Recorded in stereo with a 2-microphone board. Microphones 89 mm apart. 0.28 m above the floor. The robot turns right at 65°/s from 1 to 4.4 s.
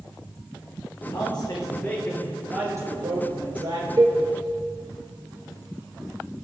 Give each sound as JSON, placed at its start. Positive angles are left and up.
{"t": 1.1, "sound": "a man speaking", "azimuth_deg": 110, "distance_m": 5.0}
{"t": 4.0, "sound": "a cowbell", "side_deg": -40, "distance_m": 3.5}